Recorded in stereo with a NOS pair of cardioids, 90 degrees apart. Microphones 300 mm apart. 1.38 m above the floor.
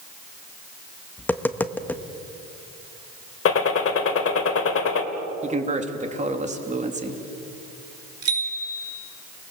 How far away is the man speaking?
About 3 m.